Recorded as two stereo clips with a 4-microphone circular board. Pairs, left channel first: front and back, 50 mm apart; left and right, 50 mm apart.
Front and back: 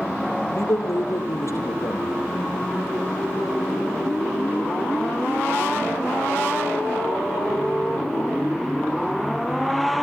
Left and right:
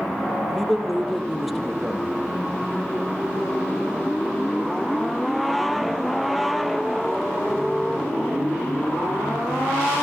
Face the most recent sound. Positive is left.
turn(degrees=0)